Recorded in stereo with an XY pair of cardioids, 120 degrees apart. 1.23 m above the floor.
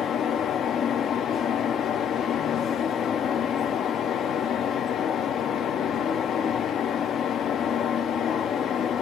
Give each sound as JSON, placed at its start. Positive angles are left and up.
{"t": 0.0, "sound": "a fan", "azimuth_deg": 50, "distance_m": 0.7}